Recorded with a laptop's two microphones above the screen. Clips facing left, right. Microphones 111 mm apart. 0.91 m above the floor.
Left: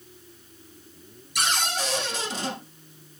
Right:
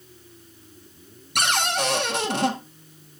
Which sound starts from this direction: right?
A cupboard door, at 1.4 s.